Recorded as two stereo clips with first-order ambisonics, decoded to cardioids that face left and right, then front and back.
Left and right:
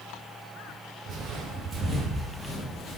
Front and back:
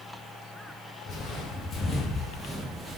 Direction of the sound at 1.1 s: 55° right.